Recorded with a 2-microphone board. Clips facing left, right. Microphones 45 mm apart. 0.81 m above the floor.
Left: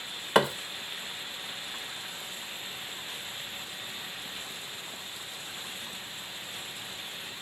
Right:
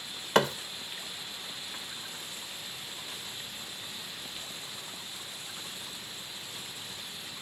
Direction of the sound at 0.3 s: 5° left (ahead or behind).